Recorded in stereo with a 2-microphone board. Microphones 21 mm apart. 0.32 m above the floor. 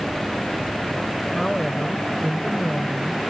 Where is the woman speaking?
20° left (ahead or behind), 1.0 m.